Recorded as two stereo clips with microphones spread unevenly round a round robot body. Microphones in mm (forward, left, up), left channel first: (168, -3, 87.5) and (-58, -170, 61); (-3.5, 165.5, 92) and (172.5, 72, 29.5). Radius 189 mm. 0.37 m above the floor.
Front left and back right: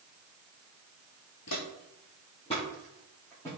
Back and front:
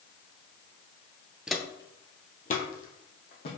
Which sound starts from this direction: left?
Footsteps, at 1.5 s.